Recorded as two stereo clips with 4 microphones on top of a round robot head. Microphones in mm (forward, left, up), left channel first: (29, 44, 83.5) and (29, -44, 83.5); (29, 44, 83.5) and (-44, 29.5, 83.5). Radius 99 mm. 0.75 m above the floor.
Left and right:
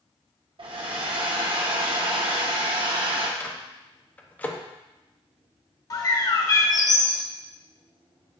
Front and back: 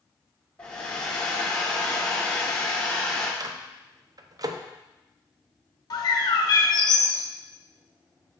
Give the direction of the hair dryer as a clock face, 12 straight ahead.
2 o'clock.